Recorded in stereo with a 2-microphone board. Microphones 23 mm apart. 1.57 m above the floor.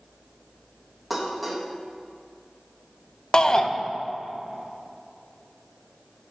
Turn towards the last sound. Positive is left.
turn(degrees=30)  # may be behind; listen again after turning